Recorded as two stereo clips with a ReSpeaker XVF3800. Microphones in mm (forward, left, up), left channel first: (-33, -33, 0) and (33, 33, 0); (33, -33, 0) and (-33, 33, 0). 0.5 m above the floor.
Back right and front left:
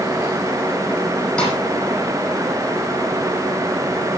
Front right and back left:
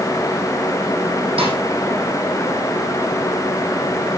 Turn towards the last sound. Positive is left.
turn(degrees=150)